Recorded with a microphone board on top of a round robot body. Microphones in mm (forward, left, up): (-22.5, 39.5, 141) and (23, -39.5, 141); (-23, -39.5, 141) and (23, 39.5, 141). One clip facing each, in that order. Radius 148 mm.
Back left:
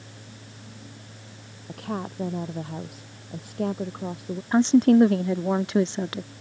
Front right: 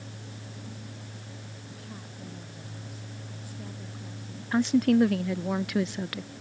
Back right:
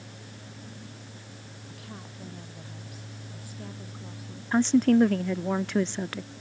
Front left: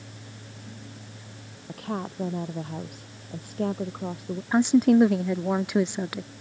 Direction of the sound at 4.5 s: 125° left.